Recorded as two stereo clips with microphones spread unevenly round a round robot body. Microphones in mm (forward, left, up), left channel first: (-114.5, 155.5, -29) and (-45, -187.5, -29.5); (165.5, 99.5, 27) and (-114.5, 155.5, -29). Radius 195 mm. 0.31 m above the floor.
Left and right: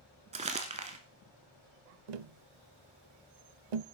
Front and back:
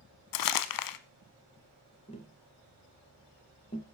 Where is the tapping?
90° right, 0.6 m.